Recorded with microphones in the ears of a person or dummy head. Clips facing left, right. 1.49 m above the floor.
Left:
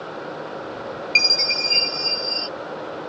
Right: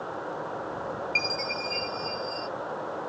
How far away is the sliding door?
No sliding door in this recording.